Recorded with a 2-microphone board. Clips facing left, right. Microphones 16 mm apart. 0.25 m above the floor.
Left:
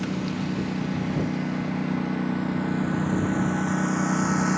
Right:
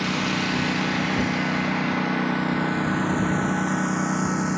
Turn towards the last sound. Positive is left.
turn(degrees=10)  # may be behind; listen again after turning